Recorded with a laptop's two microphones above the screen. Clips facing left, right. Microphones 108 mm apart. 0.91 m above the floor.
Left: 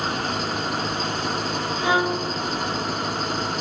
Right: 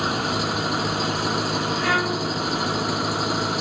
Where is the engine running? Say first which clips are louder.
Right 2 dB; 10° right (ahead or behind).